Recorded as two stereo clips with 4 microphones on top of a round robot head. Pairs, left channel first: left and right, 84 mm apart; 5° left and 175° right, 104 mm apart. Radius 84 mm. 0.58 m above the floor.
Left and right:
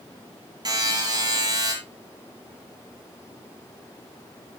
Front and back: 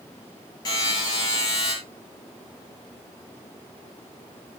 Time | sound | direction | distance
0.7 | a buzzer | 50° right | 7 m